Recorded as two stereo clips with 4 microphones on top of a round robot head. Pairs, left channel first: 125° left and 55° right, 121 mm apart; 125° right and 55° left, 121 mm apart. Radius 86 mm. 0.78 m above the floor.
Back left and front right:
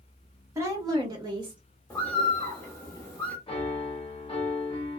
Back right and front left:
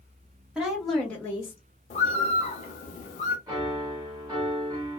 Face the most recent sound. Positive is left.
turn(degrees=100)